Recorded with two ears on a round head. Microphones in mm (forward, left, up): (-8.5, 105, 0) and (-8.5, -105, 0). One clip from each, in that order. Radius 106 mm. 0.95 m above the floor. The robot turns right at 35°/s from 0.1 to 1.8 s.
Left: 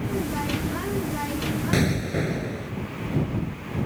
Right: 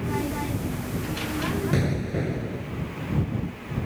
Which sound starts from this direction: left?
An explosion, at 1.7 s.